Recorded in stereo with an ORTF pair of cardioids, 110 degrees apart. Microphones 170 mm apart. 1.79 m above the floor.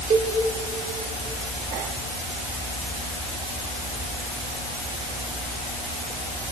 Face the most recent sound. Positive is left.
turn(degrees=-40)